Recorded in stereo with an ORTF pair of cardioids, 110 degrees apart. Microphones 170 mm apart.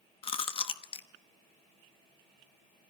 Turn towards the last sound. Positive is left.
turn(degrees=30)